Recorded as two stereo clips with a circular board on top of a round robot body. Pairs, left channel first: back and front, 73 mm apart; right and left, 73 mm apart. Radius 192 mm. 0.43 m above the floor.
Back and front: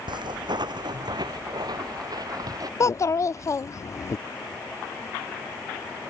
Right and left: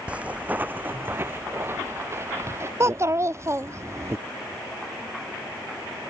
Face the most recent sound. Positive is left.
turn(degrees=135)